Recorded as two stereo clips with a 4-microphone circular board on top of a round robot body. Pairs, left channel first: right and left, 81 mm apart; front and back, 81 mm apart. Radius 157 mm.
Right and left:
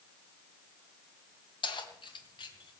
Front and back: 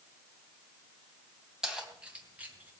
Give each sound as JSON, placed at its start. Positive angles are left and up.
{"t": 1.6, "sound": "keys jangling", "azimuth_deg": -95, "distance_m": 3.0}